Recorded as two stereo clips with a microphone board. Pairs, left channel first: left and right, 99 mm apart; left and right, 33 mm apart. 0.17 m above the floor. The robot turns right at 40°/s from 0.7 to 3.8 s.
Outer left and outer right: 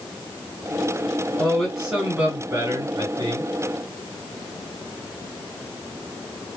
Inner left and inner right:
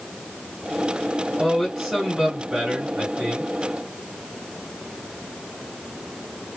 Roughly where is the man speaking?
Behind.